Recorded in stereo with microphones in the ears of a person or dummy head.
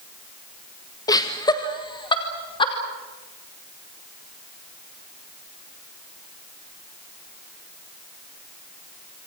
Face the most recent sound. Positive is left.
turn(degrees=30)  # may be behind; listen again after turning